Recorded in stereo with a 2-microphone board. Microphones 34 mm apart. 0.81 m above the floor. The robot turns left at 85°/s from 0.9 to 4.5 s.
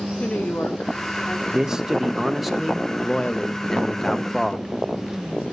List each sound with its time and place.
0.2 s a woman speaking: 115° left, 2 m; by 1.4 s 70° left, 2 m
1.5 s a man speaking: 20° right (ahead or behind), 0.9 m; by 4.7 s 5° left (ahead or behind), 0.9 m